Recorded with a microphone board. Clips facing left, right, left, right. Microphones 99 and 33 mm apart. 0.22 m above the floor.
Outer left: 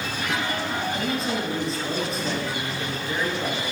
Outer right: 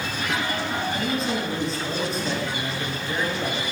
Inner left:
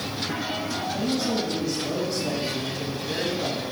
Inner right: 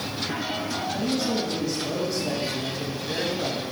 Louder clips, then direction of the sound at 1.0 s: Outer right 1 dB, even; centre (ahead or behind).